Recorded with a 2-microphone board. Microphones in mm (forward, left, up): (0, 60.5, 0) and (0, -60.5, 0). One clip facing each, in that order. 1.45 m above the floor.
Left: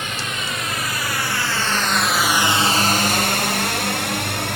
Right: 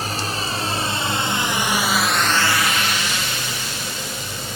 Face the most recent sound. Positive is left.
turn(degrees=65)  # may be behind; listen again after turning